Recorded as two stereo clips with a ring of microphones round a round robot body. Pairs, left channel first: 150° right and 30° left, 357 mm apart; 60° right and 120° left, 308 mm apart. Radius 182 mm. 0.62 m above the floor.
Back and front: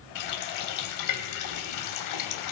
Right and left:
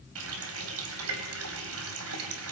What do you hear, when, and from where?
0.1 s a running tap: 170° left, 2.5 m